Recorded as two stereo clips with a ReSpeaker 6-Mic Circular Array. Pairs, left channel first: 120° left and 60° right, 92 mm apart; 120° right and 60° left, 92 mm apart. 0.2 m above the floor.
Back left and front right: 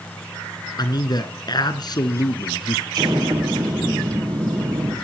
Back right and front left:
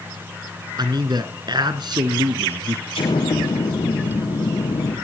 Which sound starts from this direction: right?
An explosion, at 2.9 s.